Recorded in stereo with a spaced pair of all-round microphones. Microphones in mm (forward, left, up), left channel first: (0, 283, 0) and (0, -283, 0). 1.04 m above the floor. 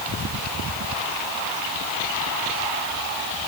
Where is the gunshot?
No gunshot in this recording.